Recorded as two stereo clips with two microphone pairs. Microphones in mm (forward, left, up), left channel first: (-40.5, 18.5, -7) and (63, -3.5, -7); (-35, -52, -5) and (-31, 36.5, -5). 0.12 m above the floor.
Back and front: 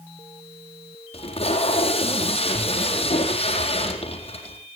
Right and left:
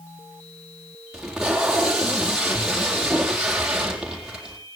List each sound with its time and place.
1.1 s tape being pulled: 170° left, 4 m